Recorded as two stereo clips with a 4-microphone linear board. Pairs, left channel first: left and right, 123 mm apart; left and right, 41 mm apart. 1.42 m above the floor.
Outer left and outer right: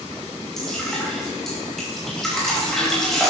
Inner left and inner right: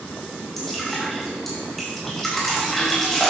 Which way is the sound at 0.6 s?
5° left (ahead or behind).